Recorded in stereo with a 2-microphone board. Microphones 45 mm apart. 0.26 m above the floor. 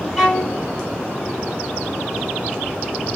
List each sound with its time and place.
0.2 s a violin: centre (ahead or behind), 1.1 m